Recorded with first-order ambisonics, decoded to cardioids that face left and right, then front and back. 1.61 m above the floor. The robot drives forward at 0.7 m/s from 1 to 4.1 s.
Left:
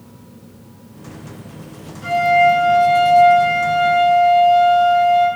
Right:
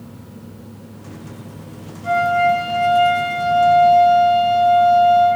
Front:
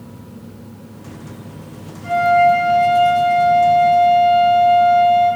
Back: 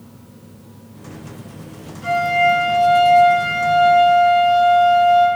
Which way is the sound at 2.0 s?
120° left.